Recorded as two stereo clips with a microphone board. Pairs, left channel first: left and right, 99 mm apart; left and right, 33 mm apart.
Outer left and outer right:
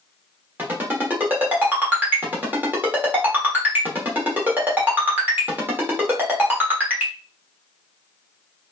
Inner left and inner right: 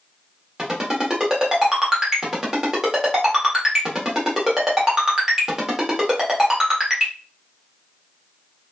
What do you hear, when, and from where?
0.6 s a ringtone: 20° right (ahead or behind), 1.1 m